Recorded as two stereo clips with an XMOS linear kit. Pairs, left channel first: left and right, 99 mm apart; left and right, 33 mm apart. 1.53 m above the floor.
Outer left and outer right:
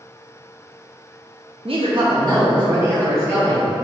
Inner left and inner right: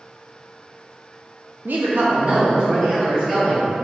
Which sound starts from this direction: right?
A woman speaking, at 1.6 s.